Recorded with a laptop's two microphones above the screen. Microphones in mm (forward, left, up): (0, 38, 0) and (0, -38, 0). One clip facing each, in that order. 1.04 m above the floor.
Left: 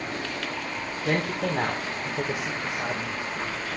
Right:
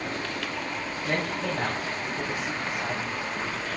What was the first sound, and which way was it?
A man speaking, 75° left (ahead or behind).